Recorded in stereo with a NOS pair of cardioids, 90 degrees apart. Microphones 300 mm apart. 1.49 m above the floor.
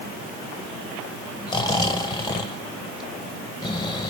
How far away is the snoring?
About 1.3 m.